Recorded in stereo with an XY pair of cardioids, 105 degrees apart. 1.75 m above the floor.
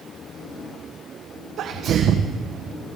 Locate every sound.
1.6 s a sneeze: 70° right, 1.5 m